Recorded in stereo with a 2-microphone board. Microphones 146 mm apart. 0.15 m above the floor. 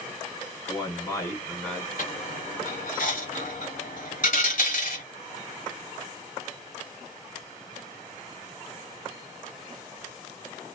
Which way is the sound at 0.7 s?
35° left (ahead or behind).